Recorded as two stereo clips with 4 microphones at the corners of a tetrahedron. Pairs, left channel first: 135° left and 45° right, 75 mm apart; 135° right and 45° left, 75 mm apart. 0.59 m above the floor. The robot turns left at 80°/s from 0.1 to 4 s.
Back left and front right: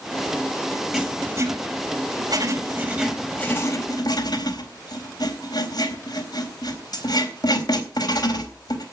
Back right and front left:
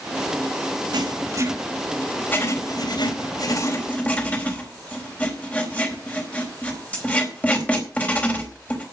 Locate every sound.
0.9 s writing: 40° left, 4 m; by 8.8 s 155° left, 4 m